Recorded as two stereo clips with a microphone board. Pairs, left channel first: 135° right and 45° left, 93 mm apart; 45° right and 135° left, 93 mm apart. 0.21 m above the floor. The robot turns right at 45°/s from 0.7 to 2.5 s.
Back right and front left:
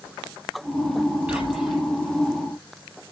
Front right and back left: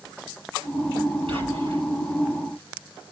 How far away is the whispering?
About 5.5 m.